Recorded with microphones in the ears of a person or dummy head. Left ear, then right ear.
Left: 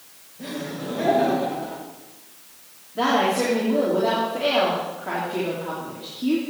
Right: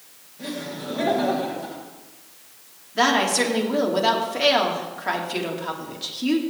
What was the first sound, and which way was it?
Laughter, 10° right (ahead or behind).